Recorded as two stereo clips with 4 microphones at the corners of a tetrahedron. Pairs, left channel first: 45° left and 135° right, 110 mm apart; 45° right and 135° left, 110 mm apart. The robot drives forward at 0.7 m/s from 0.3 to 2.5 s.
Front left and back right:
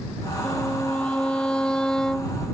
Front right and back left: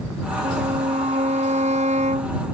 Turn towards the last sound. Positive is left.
turn(degrees=130)